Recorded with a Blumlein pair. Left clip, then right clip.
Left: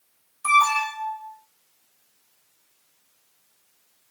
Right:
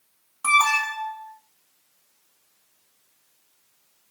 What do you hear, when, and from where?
0.4 s an alarm: 50° right, 1.4 m